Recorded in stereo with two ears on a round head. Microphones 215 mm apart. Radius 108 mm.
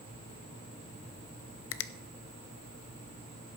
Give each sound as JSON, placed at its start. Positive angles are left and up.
{"t": 1.7, "sound": "a finger snap", "side_deg": 55, "distance_m": 0.6}